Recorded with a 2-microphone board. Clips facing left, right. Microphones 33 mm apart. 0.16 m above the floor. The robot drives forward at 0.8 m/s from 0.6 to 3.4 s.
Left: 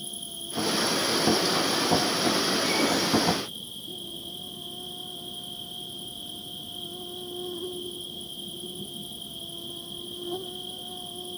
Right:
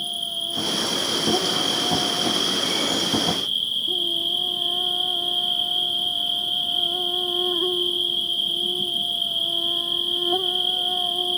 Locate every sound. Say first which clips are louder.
0.0 s an insect: right 12 dB; 55° right (ahead or behind); by 11.4 s 65° right (ahead or behind)